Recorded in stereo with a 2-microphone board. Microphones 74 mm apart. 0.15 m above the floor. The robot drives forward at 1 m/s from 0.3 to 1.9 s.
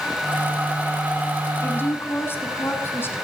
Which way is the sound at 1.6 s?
30° left (ahead or behind).